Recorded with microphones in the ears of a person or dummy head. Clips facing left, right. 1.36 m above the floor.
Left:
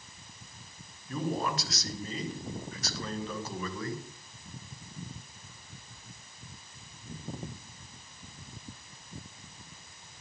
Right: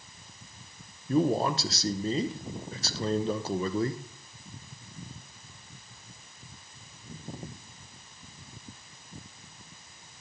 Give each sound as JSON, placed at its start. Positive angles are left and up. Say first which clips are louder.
{"t": 1.1, "sound": "a man speaking", "louder": "right 7 dB", "side_deg": -30, "distance_m": 0.6}